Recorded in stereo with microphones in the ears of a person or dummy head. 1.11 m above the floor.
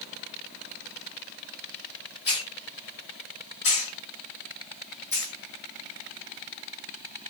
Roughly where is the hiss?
Left.